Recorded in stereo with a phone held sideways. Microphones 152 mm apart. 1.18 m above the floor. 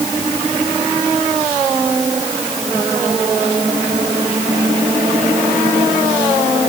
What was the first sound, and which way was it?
Only background noise.